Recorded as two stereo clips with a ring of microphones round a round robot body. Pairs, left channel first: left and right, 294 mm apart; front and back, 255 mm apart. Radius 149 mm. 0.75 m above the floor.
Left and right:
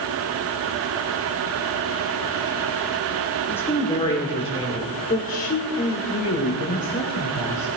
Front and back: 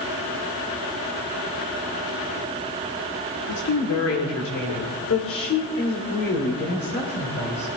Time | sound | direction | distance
3.5 | a woman speaking | 5° left | 2.5 m